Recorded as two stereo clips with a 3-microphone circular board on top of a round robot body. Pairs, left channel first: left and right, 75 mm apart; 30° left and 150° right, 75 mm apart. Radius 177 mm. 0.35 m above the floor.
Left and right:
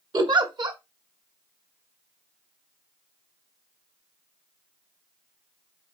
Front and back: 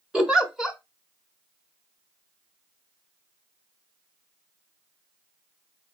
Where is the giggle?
70° right, 0.9 m.